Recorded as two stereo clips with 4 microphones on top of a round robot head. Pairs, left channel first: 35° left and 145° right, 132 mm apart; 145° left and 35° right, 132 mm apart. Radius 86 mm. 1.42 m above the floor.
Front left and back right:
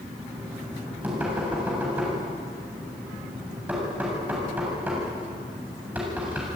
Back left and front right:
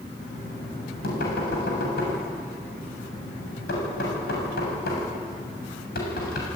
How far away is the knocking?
About 7.5 m.